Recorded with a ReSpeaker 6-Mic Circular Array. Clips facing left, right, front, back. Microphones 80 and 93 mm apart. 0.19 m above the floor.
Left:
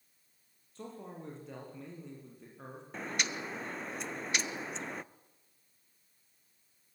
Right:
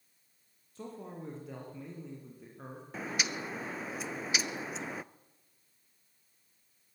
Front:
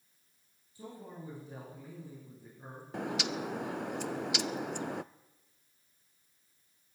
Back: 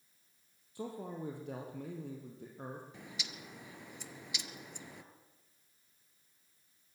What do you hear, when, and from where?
0.8 s a man speaking: straight behind, 6 m
2.9 s a bird: 5° right, 0.6 m